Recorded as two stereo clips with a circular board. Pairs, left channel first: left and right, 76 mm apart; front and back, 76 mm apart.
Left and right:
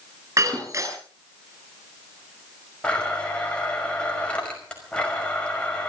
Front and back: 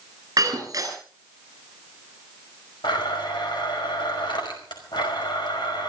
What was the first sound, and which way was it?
Breaking glass, 135° right.